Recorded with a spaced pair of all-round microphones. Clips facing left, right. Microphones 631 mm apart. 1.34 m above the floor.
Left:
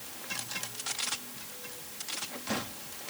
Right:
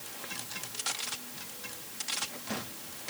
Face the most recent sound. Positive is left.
No sound to turn to.